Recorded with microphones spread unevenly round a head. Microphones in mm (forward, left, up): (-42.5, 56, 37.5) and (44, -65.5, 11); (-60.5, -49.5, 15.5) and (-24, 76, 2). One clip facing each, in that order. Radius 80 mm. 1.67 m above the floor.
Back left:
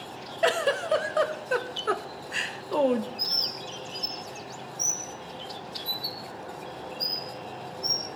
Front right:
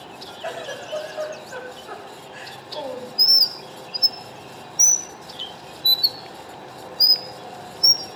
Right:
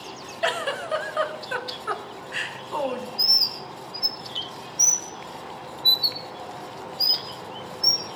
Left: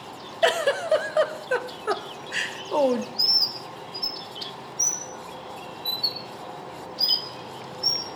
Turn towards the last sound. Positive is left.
turn(degrees=-40)